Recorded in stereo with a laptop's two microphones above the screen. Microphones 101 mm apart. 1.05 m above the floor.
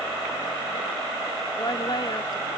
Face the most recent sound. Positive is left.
turn(degrees=50)  # may be behind; listen again after turning